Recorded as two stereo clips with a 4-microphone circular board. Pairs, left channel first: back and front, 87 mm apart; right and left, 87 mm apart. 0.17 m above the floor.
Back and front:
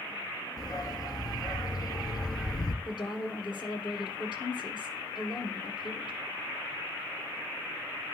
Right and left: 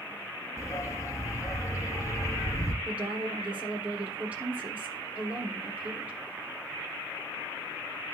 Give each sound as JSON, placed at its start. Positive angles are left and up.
{"t": 0.6, "sound": "a dog barking", "azimuth_deg": -140, "distance_m": 1.5}
{"t": 2.9, "sound": "a woman speaking", "azimuth_deg": 160, "distance_m": 5.5}